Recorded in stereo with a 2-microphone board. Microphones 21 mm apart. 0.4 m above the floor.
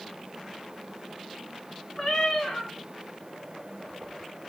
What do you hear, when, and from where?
2.0 s a cat meowing: 35° left (ahead or behind), 3.5 m